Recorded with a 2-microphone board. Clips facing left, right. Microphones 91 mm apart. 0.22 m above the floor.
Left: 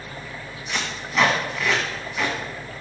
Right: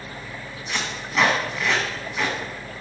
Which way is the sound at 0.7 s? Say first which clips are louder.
Even; centre (ahead or behind).